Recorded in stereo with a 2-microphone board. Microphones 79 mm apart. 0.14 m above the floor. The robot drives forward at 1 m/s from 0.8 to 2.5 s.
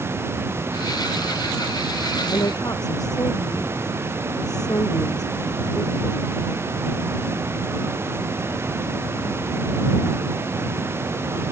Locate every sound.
2.3 s a woman speaking: 55° left (ahead or behind)